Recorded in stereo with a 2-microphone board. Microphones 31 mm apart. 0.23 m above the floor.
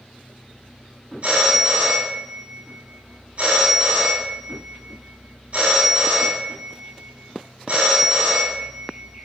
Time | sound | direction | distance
1.2 | a phone ringing | 50° right (ahead or behind) | 1.0 m